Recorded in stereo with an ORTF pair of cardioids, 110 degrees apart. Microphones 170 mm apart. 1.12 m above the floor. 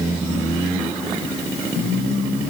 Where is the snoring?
No snoring in this recording.